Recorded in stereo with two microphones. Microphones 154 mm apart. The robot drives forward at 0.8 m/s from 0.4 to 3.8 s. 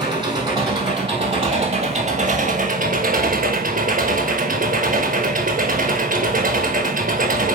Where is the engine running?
30° right (ahead or behind), 3 m; by 7.6 s 60° right (ahead or behind), 1.5 m.